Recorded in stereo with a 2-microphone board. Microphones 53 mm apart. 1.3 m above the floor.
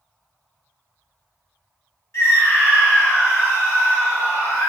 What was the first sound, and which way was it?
A scream, 65° left (ahead or behind).